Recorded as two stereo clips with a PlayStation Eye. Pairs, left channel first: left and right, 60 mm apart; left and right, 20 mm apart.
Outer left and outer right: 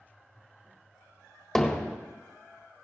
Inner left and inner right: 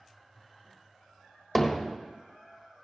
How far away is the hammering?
About 1.5 m.